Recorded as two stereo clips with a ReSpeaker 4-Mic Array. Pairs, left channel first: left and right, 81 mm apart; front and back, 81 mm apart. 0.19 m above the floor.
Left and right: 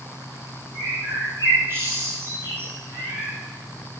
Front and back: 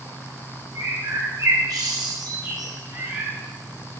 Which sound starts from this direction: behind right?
A bird, at 0.8 s.